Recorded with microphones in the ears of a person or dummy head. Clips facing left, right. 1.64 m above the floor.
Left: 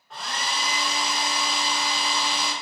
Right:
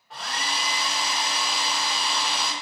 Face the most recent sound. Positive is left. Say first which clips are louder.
# left 1 dB
turn(degrees=0)  # may be behind; listen again after turning